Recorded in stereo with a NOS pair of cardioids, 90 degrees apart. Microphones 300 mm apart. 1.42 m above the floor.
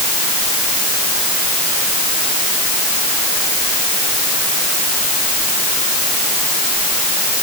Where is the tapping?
No tapping in this recording.